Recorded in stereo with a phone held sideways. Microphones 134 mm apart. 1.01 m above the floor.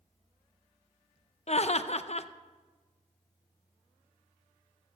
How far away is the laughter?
About 0.5 m.